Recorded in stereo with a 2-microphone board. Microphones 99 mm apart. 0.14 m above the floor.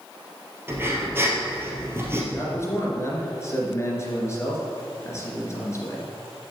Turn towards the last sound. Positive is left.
turn(degrees=30)  # may be behind; listen again after turning